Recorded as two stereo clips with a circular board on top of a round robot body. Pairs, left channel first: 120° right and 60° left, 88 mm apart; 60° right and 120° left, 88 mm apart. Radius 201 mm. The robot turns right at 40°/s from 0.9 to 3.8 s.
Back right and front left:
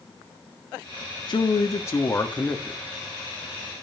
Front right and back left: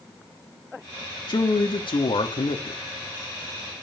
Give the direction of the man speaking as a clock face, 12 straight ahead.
3 o'clock.